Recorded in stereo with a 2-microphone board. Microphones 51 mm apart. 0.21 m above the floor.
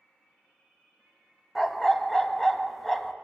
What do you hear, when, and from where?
1.6 s a dog barking: 5° left (ahead or behind), 0.5 m